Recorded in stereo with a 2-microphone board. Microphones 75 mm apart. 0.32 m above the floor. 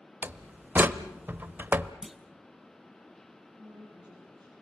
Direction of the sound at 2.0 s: 5° right (ahead or behind).